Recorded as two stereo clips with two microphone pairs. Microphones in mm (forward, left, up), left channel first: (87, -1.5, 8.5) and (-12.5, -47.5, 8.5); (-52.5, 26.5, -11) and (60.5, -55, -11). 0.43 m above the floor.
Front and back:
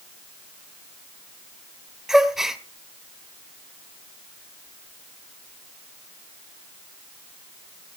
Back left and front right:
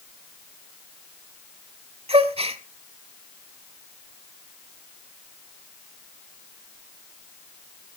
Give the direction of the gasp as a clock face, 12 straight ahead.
2 o'clock.